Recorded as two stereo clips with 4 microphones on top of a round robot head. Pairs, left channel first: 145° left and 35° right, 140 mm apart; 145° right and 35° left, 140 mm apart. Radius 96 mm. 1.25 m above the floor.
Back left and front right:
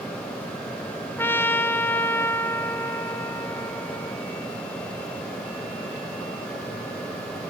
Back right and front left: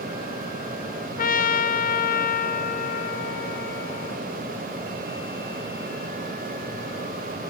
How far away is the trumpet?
About 1.1 m.